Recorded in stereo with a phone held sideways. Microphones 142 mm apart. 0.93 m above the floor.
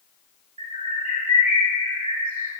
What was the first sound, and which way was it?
A bird, 70° right (ahead or behind).